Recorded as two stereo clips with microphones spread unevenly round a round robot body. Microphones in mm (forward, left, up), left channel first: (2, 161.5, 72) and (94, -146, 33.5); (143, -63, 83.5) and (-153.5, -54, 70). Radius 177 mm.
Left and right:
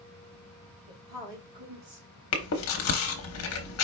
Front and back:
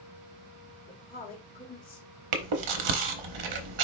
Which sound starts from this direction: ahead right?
A woman speaking, at 0.9 s.